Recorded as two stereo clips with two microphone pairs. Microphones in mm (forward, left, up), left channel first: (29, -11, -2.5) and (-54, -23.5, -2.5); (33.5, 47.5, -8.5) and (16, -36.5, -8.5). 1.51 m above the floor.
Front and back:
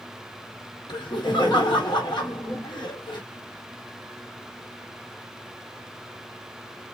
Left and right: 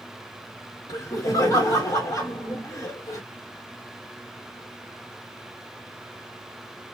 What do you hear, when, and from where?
0.9 s laughter: 25° left, 1.2 m